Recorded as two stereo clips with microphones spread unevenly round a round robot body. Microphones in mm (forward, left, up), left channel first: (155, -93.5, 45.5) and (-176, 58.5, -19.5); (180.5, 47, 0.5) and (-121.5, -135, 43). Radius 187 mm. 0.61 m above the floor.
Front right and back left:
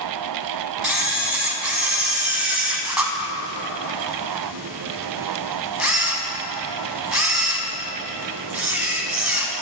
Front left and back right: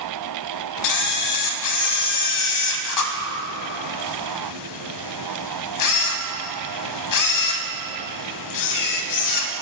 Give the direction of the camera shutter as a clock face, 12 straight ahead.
10 o'clock.